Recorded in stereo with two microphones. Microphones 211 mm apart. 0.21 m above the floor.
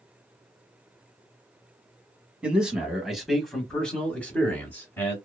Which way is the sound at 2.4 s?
5° right (ahead or behind).